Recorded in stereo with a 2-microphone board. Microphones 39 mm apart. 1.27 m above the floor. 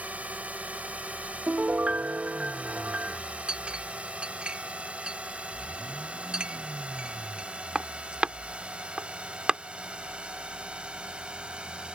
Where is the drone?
40° right (ahead or behind); by 12.0 s 25° right (ahead or behind).